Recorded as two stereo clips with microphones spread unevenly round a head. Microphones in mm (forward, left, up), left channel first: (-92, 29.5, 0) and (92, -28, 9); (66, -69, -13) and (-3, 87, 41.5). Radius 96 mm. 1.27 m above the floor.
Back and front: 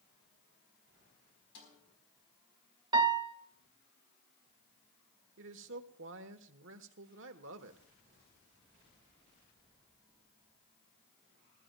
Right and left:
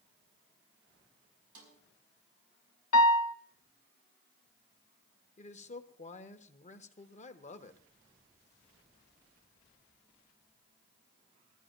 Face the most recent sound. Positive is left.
turn(degrees=-35)